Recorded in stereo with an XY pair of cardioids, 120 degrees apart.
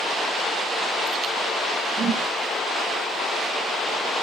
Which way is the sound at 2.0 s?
30° right.